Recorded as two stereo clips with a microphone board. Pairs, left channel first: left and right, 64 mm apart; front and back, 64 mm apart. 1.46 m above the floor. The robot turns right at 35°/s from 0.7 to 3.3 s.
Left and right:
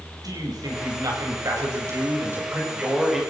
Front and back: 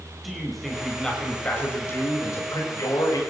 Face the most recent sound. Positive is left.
turn(degrees=0)